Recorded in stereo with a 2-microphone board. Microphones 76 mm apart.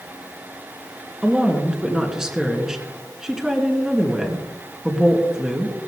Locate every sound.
1.2 s a woman speaking: 10° right (ahead or behind), 3 m